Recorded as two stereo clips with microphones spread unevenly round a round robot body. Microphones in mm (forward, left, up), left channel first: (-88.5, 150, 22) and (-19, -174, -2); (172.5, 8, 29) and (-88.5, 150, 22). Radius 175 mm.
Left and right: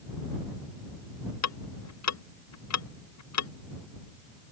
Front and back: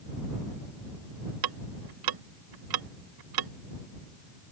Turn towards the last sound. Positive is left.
turn(degrees=145)